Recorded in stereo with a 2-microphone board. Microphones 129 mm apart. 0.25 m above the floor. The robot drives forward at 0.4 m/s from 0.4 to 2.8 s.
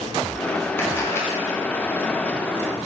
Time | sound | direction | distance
0.8 | a camera shutter | 20° left (ahead or behind) | 3 m